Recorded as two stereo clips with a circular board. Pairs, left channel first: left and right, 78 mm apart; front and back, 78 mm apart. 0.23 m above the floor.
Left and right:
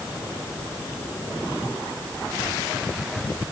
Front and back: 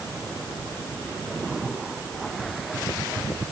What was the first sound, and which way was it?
Only background noise.